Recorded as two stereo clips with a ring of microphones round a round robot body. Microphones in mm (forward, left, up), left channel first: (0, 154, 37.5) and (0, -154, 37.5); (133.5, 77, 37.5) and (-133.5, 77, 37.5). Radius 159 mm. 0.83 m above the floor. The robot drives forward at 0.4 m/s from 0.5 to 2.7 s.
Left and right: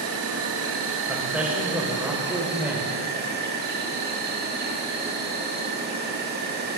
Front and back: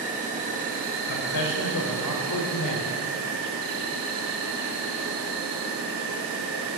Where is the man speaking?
5° right, 3 m.